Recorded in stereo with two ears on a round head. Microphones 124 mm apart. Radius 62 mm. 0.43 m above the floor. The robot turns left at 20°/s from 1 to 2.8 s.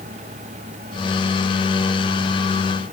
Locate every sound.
Only background noise.